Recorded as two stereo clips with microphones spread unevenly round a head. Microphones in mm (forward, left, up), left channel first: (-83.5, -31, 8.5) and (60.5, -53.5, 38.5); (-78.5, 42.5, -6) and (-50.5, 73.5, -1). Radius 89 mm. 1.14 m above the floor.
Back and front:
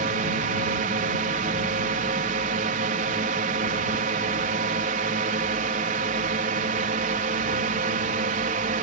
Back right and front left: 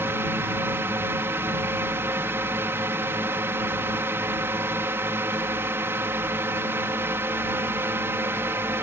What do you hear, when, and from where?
0.0 s a drone: 25° left